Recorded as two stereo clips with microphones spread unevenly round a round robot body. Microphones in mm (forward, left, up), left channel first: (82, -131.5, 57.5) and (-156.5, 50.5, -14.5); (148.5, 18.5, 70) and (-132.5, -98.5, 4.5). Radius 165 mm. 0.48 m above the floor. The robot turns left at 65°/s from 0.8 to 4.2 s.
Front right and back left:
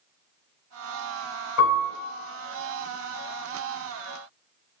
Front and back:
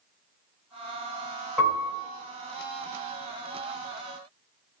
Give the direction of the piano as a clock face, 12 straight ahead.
2 o'clock.